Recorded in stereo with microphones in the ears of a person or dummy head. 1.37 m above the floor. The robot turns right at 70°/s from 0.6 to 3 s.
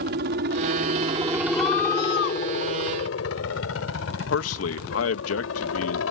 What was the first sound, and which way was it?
A helicopter, 55° right (ahead or behind).